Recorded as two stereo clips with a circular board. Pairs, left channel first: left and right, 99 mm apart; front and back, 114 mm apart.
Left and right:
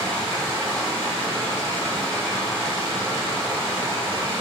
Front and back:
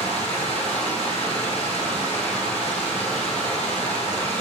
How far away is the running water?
About 1.8 m.